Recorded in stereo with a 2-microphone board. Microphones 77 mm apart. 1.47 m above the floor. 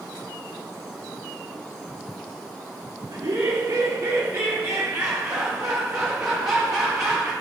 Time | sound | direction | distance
3.1 | laughter | 60° right (ahead or behind) | 2 m